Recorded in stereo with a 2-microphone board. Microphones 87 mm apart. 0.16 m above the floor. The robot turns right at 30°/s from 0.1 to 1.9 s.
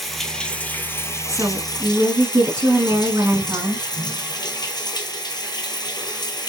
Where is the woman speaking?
35° right (ahead or behind), 1.6 m; by 3.9 s 40° right (ahead or behind), 1.6 m.